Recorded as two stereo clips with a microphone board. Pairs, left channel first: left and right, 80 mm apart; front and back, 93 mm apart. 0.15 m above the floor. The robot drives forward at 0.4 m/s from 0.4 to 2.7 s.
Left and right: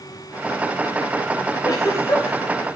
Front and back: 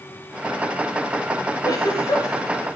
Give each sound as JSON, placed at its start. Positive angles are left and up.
{"t": 1.6, "sound": "a giggle", "azimuth_deg": 50, "distance_m": 8.5}